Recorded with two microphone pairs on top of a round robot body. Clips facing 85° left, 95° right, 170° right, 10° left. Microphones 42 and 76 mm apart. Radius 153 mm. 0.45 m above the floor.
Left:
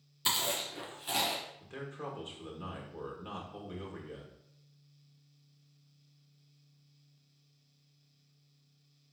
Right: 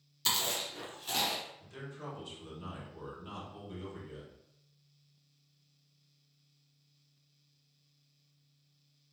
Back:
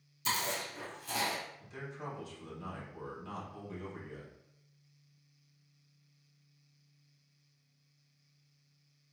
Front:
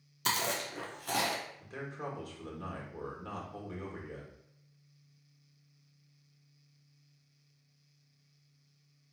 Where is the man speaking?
40° left, 1.6 m.